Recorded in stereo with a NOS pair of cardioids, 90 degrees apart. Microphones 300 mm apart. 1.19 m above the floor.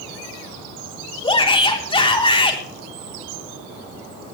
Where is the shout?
15° left, 3.5 m.